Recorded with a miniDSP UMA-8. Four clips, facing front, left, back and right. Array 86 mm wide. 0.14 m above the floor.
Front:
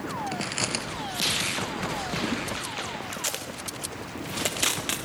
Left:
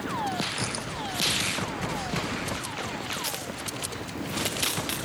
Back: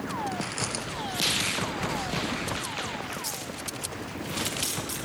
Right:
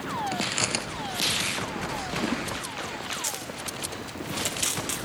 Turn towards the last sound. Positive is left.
turn(degrees=15)